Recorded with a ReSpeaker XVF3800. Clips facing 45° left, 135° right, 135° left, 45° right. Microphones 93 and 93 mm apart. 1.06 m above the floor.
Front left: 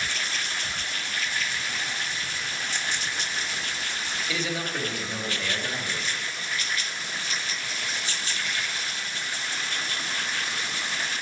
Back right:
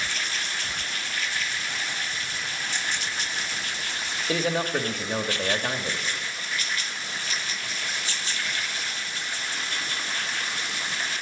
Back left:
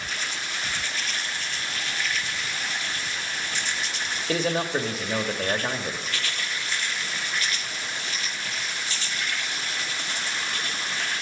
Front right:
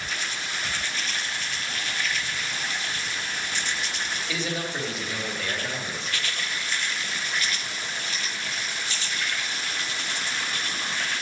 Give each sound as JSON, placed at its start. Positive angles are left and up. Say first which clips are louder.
{"t": 4.3, "sound": "a man speaking", "louder": "back right 7 dB, back left 8 dB", "azimuth_deg": 180, "distance_m": 1.8}